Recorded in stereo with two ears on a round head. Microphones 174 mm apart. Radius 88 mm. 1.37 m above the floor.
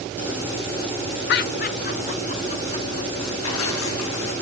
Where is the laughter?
60° left (ahead or behind), 0.7 m; by 3.3 s 30° left (ahead or behind), 2.0 m.